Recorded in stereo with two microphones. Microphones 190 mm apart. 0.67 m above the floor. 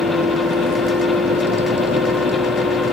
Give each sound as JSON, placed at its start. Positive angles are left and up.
{"t": 0.0, "sound": "a vehicle", "side_deg": -65}